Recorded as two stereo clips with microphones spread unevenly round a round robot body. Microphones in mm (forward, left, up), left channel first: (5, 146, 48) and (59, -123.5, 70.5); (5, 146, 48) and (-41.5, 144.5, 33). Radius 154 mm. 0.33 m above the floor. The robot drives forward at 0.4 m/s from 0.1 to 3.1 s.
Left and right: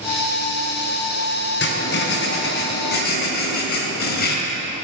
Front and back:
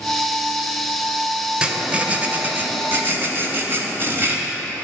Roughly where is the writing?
Behind left.